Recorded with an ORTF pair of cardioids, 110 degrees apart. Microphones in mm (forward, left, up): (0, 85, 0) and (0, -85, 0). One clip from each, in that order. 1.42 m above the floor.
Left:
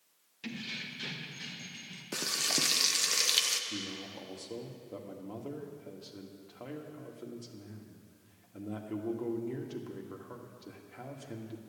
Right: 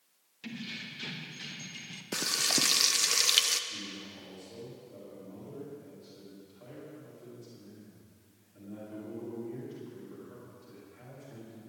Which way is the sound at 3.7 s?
70° left.